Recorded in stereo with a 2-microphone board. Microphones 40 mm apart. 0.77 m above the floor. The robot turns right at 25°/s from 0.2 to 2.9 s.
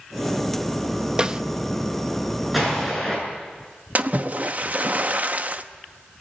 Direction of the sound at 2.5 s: 5° right (ahead or behind).